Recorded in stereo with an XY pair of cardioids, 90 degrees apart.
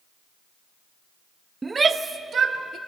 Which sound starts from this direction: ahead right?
A shout, at 1.6 s.